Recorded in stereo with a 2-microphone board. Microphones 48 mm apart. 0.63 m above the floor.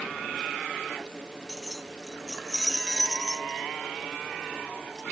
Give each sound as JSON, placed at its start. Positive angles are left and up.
{"t": 1.5, "sound": "keys jangling", "side_deg": 0}